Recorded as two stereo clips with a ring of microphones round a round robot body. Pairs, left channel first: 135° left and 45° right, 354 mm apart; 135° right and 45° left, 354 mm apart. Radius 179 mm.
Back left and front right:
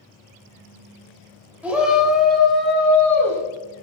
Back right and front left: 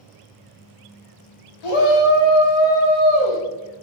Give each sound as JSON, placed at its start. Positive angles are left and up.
{"t": 1.6, "sound": "a shout", "azimuth_deg": -130, "distance_m": 3.5}